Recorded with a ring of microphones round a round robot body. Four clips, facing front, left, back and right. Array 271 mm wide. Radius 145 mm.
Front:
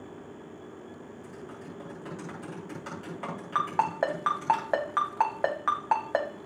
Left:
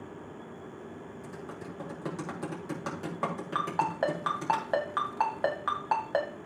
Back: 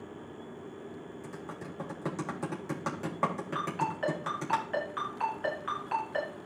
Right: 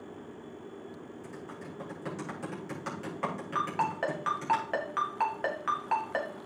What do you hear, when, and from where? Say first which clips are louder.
1.2 s typing on a keyboard: left 2 dB, even; 155° left, 4 m
3.5 s a ringtone: left 2 dB, front 8 dB; 25° left, 2.5 m